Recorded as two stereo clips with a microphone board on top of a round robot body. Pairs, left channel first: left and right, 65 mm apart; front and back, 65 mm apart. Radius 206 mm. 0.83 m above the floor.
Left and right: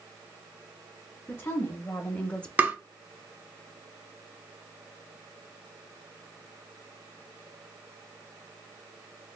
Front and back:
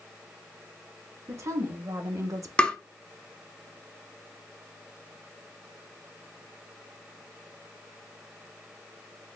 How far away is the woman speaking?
About 1.3 m.